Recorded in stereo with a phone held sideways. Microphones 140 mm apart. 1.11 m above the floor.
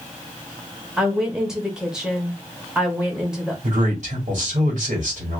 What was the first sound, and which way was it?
A woman speaking, 5° right (ahead or behind).